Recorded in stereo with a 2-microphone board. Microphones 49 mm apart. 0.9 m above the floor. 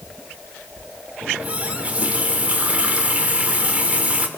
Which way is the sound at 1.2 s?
25° right (ahead or behind).